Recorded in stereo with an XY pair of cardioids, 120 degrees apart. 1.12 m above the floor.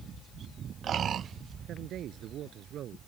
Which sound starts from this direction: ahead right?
A man speaking, at 1.7 s.